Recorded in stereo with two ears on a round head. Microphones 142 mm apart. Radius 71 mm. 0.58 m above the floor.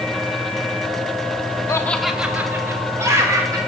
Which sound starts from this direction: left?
Laughter, at 1.7 s.